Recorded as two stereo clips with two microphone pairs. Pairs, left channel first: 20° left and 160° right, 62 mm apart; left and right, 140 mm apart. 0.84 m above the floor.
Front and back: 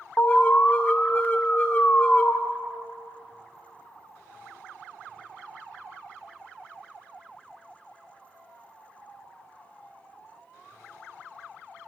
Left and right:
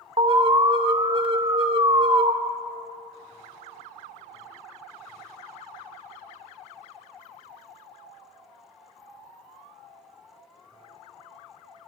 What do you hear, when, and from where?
0.2 s an alarm: 40° right, 0.6 m